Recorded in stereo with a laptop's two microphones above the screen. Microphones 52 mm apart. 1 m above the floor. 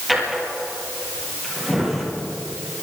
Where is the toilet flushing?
I don't hear a toilet flushing.